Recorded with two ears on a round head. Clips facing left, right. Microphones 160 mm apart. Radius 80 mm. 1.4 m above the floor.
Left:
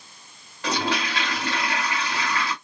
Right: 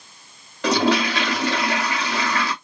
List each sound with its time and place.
0.6 s a toilet flushing: 55° right (ahead or behind), 1.7 m